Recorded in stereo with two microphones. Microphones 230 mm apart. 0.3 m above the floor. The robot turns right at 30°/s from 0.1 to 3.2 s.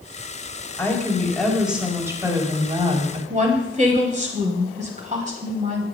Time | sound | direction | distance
0.8 | a woman speaking | 160° left | 1.8 m
3.3 | a woman speaking | 30° right (ahead or behind) | 1.3 m